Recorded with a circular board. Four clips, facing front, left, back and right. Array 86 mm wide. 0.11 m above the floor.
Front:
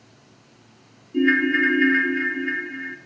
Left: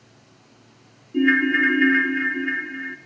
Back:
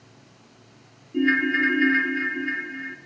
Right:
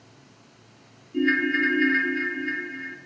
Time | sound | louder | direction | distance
1.1 | a ringtone | left 4 dB, front 3 dB | 70° left | 1.0 m